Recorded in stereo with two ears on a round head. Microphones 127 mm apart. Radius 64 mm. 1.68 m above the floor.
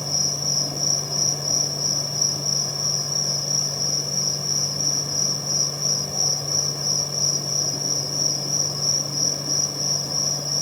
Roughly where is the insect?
Centre.